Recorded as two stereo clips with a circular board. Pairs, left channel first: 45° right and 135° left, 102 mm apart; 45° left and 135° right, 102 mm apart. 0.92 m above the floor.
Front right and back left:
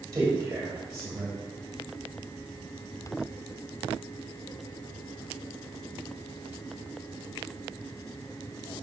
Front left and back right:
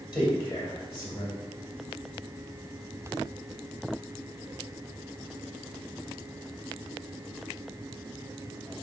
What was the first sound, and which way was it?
A man speaking, 80° left.